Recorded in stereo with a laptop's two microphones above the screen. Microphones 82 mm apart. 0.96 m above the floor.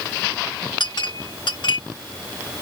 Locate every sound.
0.8 s a clink: 70° left (ahead or behind)